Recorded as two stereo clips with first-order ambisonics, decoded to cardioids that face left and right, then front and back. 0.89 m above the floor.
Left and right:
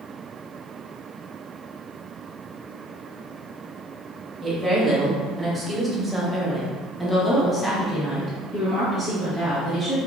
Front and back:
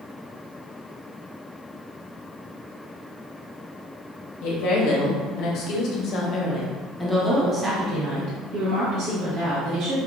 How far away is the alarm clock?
I don't hear an alarm clock.